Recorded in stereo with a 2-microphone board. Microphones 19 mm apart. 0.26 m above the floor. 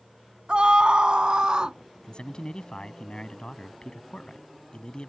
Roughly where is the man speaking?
Left.